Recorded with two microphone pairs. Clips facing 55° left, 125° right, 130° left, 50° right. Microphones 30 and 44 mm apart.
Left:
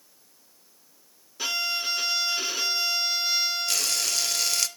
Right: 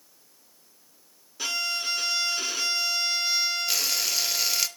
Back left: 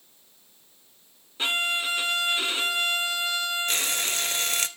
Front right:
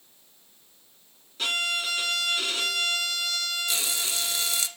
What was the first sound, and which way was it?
A violin, 135° left.